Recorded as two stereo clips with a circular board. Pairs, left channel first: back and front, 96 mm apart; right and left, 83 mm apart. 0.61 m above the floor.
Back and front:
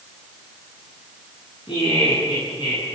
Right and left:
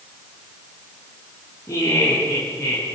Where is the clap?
No clap in this recording.